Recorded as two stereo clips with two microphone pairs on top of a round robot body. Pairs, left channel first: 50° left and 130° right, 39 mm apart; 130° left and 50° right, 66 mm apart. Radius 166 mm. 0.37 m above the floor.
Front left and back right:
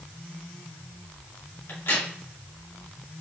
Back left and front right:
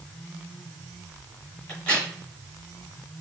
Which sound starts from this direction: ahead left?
A crack, at 1.7 s.